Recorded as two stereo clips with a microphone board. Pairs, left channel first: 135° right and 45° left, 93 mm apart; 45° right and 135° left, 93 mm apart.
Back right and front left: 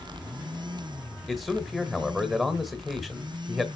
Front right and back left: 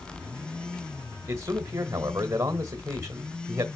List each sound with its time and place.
1.3 s a man speaking: 140° left, 1.3 m